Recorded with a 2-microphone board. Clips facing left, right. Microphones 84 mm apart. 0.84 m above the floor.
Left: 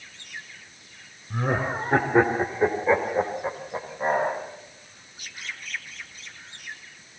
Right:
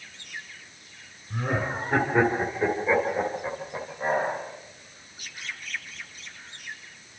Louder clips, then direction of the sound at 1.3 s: Left 2 dB; 20° left (ahead or behind).